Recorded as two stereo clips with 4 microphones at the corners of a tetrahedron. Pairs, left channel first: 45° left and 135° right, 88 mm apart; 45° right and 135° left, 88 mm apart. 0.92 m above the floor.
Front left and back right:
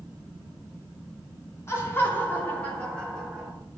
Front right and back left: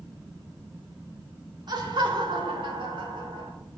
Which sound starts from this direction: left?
Laughter, at 1.7 s.